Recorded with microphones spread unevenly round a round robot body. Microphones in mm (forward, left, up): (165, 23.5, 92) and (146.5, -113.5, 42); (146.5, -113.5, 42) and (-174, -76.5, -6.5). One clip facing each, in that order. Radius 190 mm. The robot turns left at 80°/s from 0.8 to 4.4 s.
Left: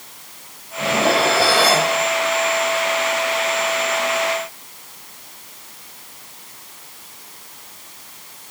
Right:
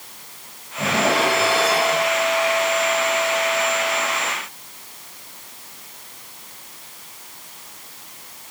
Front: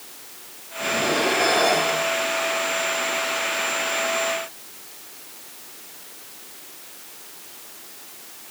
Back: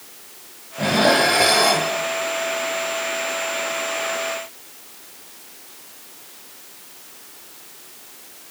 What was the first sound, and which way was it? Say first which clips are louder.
Dishes clattering: left 2 dB, back 5 dB; straight behind.